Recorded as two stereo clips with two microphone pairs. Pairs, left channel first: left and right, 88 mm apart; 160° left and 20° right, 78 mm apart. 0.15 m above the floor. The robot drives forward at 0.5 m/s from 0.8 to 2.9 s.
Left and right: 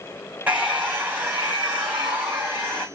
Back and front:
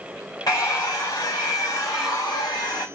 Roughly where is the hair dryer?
Behind.